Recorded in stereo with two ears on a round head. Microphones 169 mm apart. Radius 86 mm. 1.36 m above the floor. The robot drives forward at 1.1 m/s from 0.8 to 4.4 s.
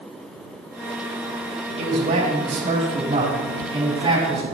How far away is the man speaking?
About 2.5 m.